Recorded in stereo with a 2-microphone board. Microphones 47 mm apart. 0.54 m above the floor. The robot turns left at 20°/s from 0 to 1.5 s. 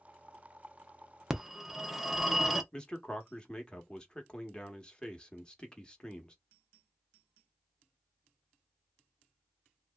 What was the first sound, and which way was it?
A phone ringing, 10° right (ahead or behind).